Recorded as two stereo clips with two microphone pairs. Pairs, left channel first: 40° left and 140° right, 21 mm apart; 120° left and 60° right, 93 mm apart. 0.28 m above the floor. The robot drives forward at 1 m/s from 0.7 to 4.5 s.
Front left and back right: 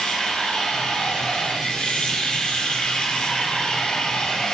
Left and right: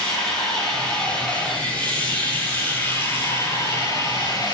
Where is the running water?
40° left, 6 m; by 4.5 s 80° left, 4 m.